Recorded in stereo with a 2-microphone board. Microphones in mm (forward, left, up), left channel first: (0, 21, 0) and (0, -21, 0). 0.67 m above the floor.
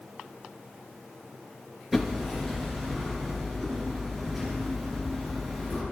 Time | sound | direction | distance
1.9 | hammering | 10° right (ahead or behind) | 4 m